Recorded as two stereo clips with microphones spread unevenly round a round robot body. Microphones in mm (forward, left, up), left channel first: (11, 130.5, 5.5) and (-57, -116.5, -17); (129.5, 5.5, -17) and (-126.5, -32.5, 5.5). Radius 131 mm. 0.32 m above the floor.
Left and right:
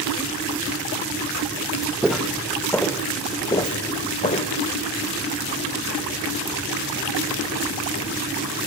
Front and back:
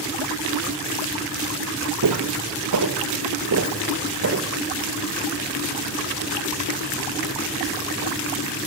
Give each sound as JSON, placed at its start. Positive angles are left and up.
{"t": 2.0, "sound": "footsteps", "azimuth_deg": 165, "distance_m": 2.5}